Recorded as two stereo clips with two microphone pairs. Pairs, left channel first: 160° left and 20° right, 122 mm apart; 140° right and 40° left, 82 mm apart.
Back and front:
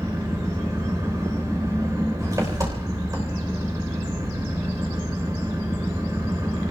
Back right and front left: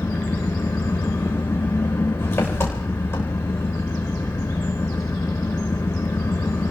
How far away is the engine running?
About 3.5 m.